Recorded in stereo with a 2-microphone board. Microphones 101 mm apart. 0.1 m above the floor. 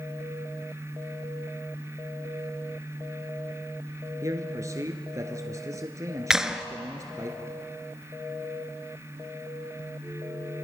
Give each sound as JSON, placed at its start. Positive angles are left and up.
{"t": 4.2, "sound": "a man speaking", "side_deg": -35, "distance_m": 1.2}
{"t": 6.3, "sound": "a clap", "side_deg": -5, "distance_m": 0.9}